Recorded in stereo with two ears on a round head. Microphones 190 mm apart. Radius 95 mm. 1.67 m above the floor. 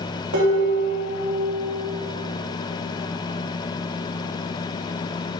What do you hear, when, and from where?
0.3 s dishes clattering: 75° right (ahead or behind), 2.5 m